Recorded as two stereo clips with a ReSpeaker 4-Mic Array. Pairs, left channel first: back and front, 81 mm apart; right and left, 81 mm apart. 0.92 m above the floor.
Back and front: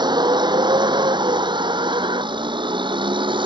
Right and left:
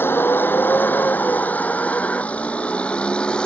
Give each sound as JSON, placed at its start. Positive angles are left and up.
{"t": 0.0, "sound": "a vehicle", "azimuth_deg": -25}